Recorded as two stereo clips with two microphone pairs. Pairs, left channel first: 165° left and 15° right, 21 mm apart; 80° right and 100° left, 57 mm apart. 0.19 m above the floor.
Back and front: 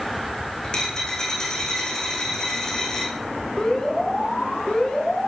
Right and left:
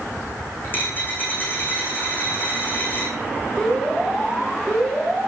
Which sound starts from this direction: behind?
An alarm, at 3.6 s.